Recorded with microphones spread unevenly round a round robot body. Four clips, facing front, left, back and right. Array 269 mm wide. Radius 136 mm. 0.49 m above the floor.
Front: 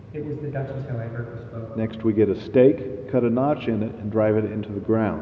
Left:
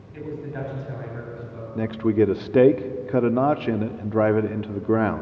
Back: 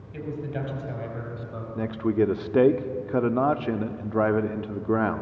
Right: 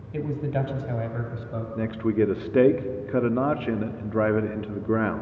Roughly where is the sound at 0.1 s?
Ahead right.